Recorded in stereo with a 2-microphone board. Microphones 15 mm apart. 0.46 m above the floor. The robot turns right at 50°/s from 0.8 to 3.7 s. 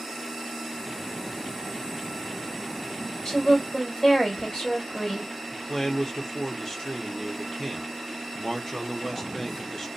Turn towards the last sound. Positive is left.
turn(degrees=30)  # may be behind; listen again after turning